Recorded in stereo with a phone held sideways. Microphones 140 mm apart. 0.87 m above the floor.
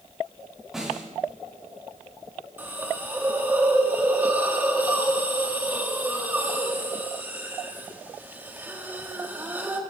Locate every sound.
0.7 s a snare drum: centre (ahead or behind), 6 m
2.6 s a hiss: 10° right (ahead or behind), 1.5 m